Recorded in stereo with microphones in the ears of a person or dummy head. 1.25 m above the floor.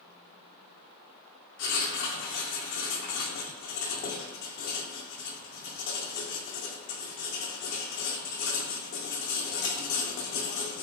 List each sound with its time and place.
1.6 s writing: 55° left (ahead or behind), 0.6 m